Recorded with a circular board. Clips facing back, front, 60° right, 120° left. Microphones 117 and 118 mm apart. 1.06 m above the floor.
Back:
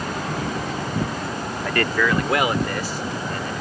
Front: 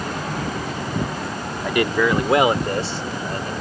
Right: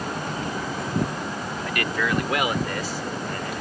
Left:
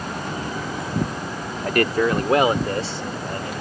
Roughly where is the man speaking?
Left.